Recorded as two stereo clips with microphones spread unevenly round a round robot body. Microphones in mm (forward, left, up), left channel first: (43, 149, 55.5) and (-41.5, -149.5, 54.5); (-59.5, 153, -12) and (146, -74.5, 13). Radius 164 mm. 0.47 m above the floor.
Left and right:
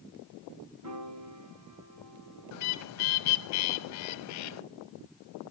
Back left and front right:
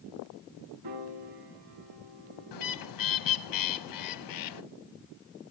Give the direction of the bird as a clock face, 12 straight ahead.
8 o'clock.